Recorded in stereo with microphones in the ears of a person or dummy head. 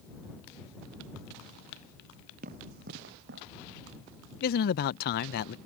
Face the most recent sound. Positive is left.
turn(degrees=50)  # may be behind; listen again after turning